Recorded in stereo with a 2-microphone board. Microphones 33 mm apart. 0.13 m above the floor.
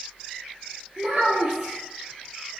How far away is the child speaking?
About 1.1 m.